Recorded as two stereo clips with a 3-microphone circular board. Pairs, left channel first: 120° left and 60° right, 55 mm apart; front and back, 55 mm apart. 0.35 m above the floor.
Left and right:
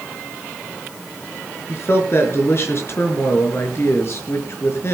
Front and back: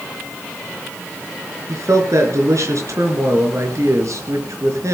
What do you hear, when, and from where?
1.7 s a man speaking: 160° left, 4.5 m